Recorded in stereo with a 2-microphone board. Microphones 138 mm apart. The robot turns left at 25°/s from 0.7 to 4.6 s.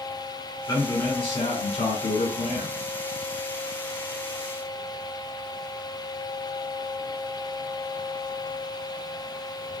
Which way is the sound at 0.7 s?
155° left.